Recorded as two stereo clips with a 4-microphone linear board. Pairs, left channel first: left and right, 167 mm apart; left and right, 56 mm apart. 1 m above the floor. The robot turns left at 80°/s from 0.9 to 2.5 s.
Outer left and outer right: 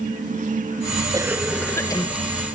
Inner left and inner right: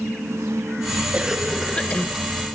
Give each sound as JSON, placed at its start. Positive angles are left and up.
{"t": 1.1, "sound": "a cough", "azimuth_deg": -150, "distance_m": 1.0}